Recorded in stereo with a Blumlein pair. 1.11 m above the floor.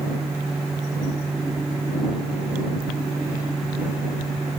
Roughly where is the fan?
Ahead.